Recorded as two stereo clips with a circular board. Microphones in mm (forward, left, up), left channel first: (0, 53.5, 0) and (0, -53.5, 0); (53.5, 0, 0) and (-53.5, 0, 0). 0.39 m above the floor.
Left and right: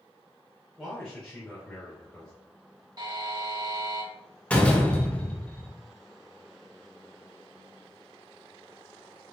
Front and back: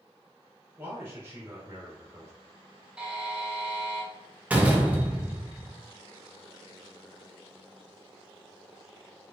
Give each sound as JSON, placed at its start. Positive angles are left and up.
{"t": 0.8, "sound": "a man speaking", "azimuth_deg": 165, "distance_m": 1.3}
{"t": 3.0, "sound": "a buzzer", "azimuth_deg": -105, "distance_m": 0.8}
{"t": 4.5, "sound": "a door slam", "azimuth_deg": 140, "distance_m": 0.6}